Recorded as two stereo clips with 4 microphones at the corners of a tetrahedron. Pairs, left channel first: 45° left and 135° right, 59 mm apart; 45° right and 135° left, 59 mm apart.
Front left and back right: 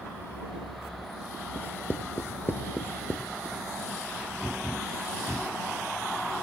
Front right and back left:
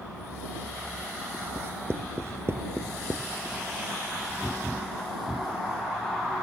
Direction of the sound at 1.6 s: 95° left.